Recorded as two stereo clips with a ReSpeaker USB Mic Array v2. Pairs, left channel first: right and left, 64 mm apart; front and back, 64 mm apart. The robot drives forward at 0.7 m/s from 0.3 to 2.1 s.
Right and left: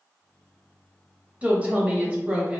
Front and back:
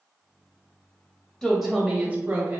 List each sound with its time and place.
1.4 s a woman speaking: 70° left, 0.9 m; by 2.6 s 140° left, 1.0 m